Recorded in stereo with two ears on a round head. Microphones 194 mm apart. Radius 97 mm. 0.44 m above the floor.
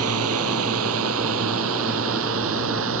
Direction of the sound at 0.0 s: 80° right.